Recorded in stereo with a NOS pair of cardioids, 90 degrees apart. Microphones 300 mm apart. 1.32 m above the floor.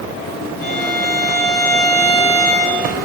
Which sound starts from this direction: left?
A violin, at 0.6 s.